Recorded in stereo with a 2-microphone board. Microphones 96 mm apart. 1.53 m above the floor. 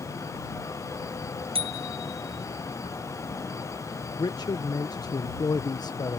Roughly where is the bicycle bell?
Right.